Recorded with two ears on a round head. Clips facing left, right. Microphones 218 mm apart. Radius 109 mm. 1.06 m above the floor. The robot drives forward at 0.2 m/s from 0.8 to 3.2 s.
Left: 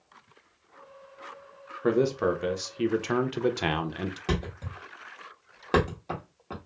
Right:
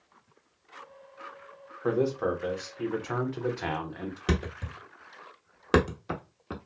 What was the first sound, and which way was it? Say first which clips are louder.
A man speaking: left 3 dB; 35° left (ahead or behind).